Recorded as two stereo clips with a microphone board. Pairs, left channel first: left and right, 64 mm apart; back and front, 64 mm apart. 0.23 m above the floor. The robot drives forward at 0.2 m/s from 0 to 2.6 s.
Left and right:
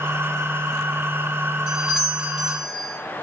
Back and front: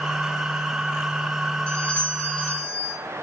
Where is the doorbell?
150° right, 1.4 m; by 3.0 s 160° right, 1.5 m.